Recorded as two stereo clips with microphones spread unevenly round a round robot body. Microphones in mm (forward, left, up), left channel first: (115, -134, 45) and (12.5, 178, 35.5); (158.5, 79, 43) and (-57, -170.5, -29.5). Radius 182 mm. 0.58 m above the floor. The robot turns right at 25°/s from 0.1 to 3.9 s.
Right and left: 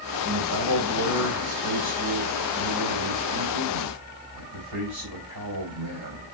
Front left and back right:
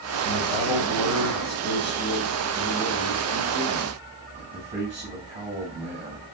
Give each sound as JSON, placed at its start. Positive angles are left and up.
{"t": 0.2, "sound": "a man speaking", "azimuth_deg": 55, "distance_m": 3.5}